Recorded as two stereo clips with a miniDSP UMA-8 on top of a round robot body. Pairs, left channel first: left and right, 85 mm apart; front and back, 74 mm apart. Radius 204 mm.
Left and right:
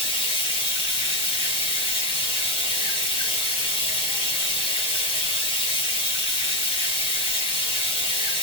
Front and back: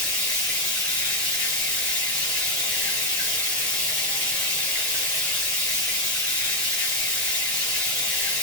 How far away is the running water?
About 1.1 m.